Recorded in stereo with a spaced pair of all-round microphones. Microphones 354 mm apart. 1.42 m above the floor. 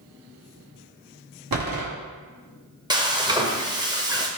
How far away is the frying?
About 0.6 m.